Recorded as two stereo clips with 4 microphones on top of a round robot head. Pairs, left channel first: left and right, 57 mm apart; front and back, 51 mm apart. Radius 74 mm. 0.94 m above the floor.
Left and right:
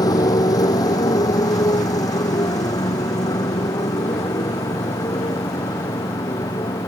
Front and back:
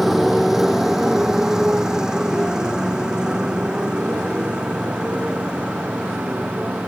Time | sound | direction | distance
0.0 | a motorcycle | 95° left | ?